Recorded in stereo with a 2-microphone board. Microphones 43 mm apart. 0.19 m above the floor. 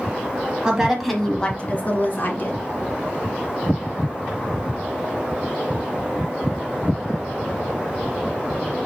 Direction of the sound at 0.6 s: 20° right (ahead or behind).